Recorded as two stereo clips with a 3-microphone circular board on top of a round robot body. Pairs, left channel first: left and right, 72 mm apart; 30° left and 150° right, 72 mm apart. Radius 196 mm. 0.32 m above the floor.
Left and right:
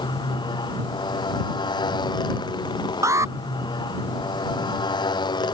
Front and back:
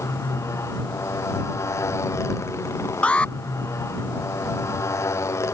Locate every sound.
0.0 s a motorcycle: 80° left
3.0 s an alarm: 45° right